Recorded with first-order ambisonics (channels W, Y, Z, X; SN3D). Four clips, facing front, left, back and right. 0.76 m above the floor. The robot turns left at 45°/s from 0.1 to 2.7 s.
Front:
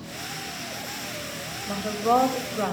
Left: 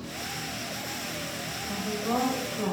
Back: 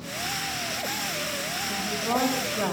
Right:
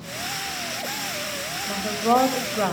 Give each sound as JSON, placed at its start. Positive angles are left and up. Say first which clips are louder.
{"t": 1.7, "sound": "a woman speaking", "louder": "right 9 dB, front 7 dB", "azimuth_deg": -50, "distance_m": 1.3}